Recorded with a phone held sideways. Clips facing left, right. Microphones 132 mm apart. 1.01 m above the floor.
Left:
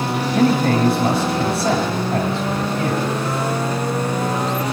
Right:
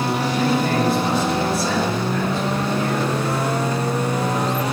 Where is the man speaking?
80° left, 6.5 m.